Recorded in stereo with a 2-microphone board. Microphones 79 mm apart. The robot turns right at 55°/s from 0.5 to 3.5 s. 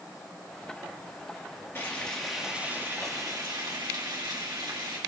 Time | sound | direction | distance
1.8 | frying | 150° left | 3.5 m